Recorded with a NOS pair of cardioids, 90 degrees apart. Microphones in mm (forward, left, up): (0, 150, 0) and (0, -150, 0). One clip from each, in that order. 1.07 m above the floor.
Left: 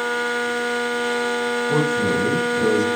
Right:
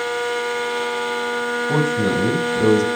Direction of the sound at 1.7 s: 40° right.